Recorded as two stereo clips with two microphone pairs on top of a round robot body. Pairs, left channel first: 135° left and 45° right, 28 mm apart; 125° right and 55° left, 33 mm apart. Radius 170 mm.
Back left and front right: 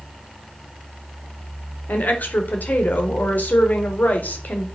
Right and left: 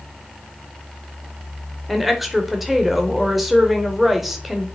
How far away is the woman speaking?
About 4 m.